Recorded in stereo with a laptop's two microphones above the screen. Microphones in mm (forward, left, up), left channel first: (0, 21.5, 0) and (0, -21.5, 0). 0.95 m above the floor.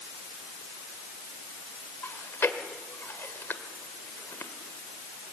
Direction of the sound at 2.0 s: 75° left (ahead or behind).